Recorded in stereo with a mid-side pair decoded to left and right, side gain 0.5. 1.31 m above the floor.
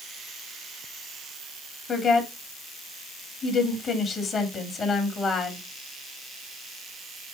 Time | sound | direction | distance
1.9 | a woman speaking | 45° left | 3.5 m